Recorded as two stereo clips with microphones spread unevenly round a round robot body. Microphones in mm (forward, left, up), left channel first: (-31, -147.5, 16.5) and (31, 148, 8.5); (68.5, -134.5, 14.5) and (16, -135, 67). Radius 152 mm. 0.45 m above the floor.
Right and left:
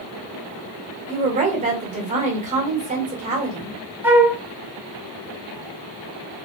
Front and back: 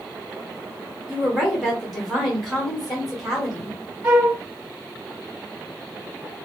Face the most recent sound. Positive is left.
turn(degrees=160)